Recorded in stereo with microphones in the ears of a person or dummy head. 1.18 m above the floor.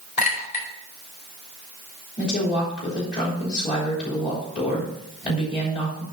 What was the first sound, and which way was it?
A clink, 45° left (ahead or behind).